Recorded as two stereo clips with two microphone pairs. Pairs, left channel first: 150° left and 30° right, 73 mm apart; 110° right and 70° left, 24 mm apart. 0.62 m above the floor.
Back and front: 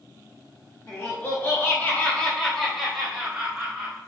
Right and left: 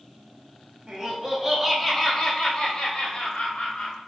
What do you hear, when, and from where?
0.9 s laughter: 120° left, 1.0 m; by 4.0 s 115° right, 1.7 m